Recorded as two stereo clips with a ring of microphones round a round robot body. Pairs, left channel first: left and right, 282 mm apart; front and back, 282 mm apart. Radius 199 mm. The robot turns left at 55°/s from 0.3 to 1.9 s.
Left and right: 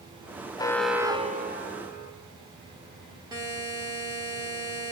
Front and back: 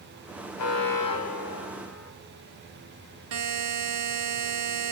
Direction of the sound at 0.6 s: 15° left.